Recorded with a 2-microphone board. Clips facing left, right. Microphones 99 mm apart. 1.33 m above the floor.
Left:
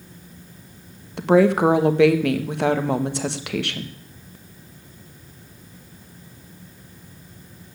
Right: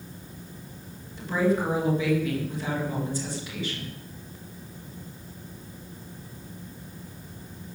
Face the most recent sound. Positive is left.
turn(degrees=70)  # may be behind; listen again after turning